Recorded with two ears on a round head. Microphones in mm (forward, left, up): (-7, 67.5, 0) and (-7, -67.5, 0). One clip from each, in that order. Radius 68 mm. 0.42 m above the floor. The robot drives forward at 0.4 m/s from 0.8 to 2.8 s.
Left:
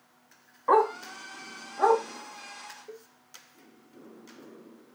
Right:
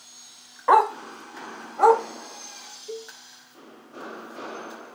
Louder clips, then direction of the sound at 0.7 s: Right 5 dB; 65° right (ahead or behind).